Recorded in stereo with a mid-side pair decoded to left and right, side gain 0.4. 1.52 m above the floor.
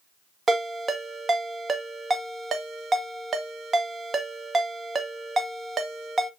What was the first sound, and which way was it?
A ringtone, 40° right.